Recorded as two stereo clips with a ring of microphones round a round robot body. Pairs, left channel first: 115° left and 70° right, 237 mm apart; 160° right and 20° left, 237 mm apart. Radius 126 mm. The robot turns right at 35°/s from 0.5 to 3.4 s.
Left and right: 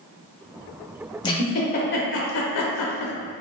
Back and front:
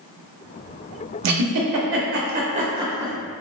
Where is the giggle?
40° left, 0.6 m; by 3.1 s 105° left, 0.6 m.